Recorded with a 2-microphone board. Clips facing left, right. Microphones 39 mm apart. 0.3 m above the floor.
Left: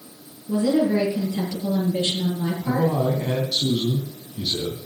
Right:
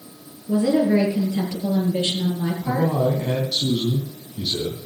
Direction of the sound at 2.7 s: Centre (ahead or behind).